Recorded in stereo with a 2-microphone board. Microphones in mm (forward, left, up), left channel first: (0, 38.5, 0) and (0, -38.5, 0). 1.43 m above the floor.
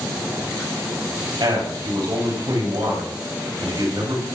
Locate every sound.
1.4 s a man speaking: 85° right, 7 m